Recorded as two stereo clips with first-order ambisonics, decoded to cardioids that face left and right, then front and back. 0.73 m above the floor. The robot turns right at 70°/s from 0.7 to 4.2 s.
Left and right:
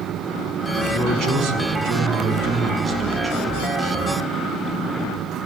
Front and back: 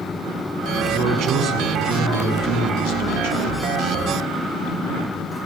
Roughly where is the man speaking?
Behind right.